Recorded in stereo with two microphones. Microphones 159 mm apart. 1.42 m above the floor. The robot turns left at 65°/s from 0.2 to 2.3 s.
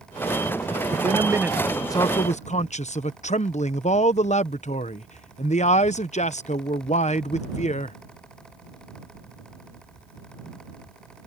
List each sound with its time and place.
0.9 s a man speaking: 135° right; by 8.0 s 135° left